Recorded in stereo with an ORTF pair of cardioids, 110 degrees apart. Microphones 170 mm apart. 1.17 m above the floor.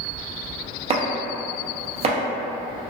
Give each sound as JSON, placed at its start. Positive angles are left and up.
{"t": 0.9, "sound": "chopping", "azimuth_deg": -35, "distance_m": 0.5}